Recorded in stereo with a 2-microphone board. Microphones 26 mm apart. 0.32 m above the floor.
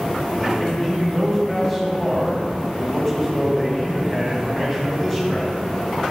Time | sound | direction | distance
0.3 | a man speaking | 15° left (ahead or behind) | 2 m